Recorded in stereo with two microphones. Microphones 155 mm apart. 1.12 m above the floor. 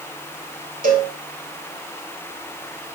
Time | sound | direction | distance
0.8 | a cowbell | 65° right (ahead or behind) | 4 m